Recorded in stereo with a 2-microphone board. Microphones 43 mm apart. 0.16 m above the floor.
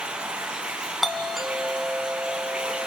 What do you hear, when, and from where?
0.0 s running water: 20° right (ahead or behind), 3 m
1.0 s a doorbell: 5° right (ahead or behind), 1.9 m